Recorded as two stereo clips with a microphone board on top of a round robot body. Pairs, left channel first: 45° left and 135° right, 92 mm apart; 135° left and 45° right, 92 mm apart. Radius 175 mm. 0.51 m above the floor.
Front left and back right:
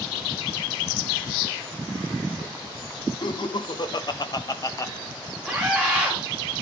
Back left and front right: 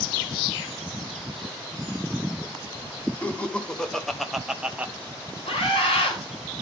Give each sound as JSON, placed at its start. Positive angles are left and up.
{"t": 3.2, "sound": "laughter", "azimuth_deg": 60, "distance_m": 2.0}
{"t": 5.5, "sound": "a scream", "azimuth_deg": 135, "distance_m": 5.0}